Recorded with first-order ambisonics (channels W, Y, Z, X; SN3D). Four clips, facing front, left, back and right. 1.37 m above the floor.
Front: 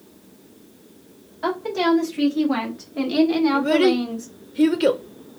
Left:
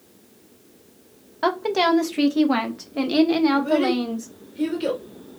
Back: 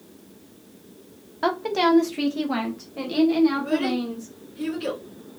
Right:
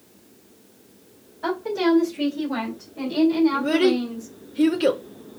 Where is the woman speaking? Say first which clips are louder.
Left 2 dB, even; 115° left, 1.5 m; by 4.3 s 60° left, 1.8 m.